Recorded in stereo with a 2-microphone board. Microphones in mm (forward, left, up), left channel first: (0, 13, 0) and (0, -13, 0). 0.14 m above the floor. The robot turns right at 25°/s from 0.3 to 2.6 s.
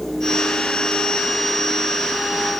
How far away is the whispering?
No whispering in this recording.